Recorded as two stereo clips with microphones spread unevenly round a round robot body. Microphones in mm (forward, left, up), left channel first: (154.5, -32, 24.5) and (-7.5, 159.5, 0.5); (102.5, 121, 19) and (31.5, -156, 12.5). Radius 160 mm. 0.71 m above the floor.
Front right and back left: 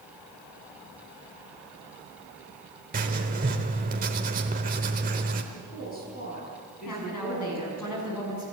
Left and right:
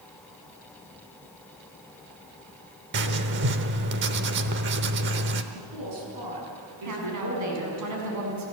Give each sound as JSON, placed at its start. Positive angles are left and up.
{"t": 2.9, "sound": "writing", "azimuth_deg": -165, "distance_m": 0.9}
{"t": 5.5, "sound": "a woman speaking", "azimuth_deg": -115, "distance_m": 7.0}
{"t": 6.8, "sound": "a woman speaking", "azimuth_deg": -80, "distance_m": 7.5}